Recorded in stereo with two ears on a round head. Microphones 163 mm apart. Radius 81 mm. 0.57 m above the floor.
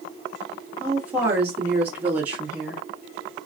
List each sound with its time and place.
0.8 s a woman speaking: 10° right (ahead or behind), 1.9 m